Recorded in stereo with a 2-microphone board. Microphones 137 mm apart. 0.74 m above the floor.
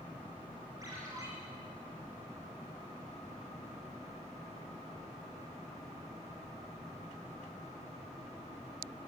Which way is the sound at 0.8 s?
25° right (ahead or behind).